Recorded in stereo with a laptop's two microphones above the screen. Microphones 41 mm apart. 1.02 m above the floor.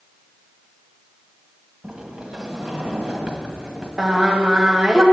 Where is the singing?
15° right (ahead or behind), 1.2 m.